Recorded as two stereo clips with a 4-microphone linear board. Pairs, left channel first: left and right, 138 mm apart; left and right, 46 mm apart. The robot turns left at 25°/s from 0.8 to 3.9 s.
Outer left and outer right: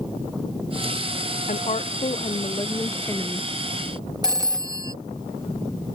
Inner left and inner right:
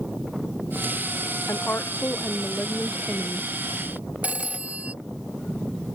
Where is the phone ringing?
30° right (ahead or behind).